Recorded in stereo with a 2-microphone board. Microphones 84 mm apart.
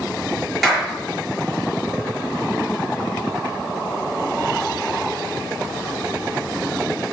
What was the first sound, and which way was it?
A clap, centre (ahead or behind).